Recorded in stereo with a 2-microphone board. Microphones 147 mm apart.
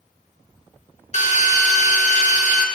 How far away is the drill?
About 1.1 m.